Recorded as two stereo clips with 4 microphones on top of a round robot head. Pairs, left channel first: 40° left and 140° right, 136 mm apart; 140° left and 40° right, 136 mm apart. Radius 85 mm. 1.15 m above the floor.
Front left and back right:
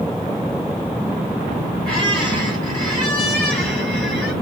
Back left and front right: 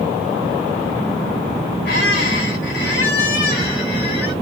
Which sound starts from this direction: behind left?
A squeak, at 1.9 s.